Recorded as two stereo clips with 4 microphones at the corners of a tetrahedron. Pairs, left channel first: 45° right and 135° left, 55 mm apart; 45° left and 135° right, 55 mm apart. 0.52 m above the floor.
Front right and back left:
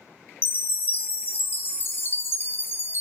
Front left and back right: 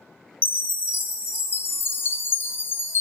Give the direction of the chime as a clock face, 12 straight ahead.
12 o'clock.